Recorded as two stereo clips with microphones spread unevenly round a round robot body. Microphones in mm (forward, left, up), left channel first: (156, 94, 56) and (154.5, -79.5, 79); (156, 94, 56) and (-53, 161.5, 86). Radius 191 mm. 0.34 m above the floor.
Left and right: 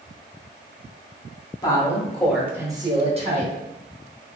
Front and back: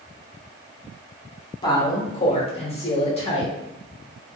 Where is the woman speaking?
40° left, 1.2 m; by 3.5 s 60° right, 1.2 m.